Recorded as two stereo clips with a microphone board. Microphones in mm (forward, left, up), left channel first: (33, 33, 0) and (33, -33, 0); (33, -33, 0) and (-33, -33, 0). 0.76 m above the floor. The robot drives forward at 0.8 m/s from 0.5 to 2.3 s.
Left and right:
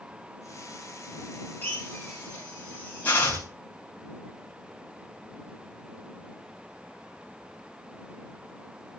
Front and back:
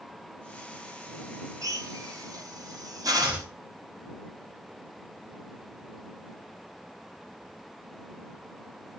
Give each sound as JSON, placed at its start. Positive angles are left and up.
{"t": 1.6, "sound": "a drill", "azimuth_deg": 150, "distance_m": 3.0}
{"t": 3.2, "sound": "chopping", "azimuth_deg": -110, "distance_m": 1.5}